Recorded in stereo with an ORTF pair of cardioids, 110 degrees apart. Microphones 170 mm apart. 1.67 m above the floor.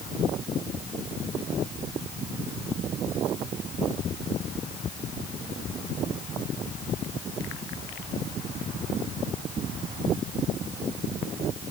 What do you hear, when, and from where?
Only background noise.